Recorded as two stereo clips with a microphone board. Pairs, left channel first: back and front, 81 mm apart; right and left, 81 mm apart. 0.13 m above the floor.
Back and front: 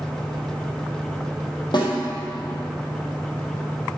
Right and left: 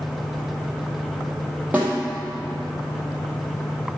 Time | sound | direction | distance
1.7 | a snare drum | 160° left | 3 m